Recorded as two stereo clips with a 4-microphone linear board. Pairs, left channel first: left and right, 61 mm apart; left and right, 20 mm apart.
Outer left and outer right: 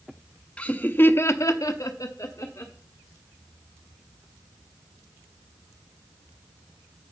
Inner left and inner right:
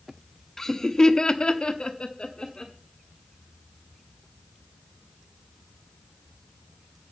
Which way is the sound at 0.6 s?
20° left (ahead or behind).